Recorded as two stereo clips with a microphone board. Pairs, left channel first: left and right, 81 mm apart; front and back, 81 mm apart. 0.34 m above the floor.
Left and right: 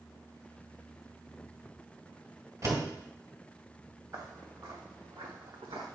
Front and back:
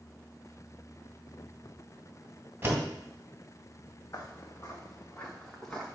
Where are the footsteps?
50° right, 1.8 m; by 6.0 s 85° right, 1.8 m.